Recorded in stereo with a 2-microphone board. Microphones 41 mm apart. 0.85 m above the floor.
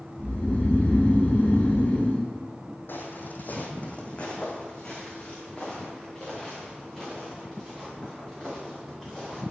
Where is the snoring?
45° left (ahead or behind), 3.5 m.